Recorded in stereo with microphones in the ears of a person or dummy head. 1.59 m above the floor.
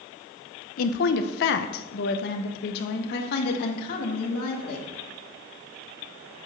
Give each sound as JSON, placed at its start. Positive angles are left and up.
{"t": 0.8, "sound": "a woman speaking", "side_deg": 50, "distance_m": 0.8}